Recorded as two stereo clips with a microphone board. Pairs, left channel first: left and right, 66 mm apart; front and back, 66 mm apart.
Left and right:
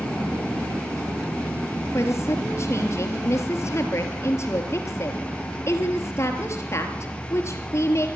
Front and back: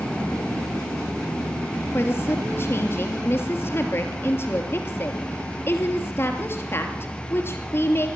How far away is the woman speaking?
About 2.5 m.